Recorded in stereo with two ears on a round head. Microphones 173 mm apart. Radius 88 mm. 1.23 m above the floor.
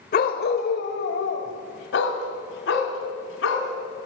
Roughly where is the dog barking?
Left.